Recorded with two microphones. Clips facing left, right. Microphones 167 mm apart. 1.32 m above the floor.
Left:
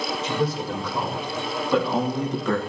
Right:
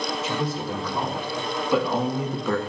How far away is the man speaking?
About 4 m.